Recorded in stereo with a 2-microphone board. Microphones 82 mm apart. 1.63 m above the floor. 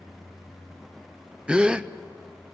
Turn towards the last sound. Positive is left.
turn(degrees=-10)  # may be behind; listen again after turning